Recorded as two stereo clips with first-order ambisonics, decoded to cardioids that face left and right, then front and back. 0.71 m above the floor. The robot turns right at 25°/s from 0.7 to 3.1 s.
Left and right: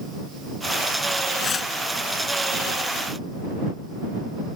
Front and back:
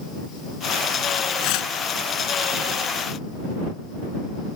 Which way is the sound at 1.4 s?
20° left.